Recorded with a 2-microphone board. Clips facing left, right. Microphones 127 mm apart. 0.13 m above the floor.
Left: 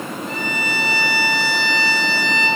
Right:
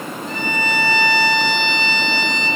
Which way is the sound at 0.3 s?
5° left (ahead or behind).